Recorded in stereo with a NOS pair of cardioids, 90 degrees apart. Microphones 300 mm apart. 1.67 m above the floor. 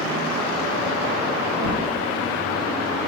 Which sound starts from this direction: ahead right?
A whoosh, at 1.5 s.